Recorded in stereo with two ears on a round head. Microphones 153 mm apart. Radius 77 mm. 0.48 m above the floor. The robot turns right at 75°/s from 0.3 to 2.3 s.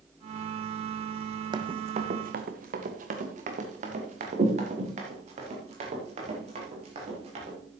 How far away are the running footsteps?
About 1.1 m.